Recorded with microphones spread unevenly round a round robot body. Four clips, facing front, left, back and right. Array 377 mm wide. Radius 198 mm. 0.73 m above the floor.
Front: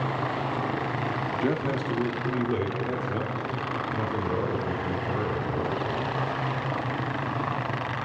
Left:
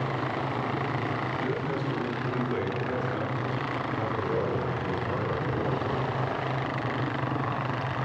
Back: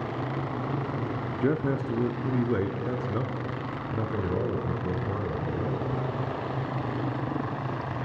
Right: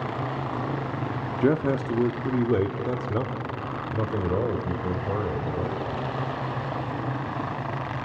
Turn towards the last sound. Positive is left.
turn(degrees=-140)